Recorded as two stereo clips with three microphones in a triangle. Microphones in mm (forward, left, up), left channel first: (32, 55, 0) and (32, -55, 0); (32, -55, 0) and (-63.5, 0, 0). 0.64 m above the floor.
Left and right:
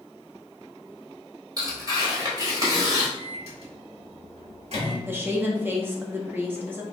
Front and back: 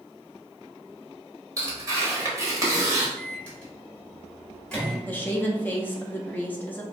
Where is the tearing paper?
145° right, 1.2 m.